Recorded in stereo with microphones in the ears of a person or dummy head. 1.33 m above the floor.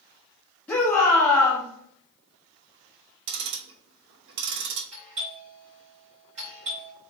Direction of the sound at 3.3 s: 75° right (ahead or behind).